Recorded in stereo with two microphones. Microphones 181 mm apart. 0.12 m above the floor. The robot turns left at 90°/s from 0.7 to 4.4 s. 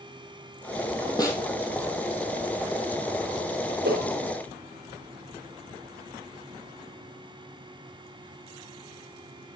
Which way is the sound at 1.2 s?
20° left (ahead or behind).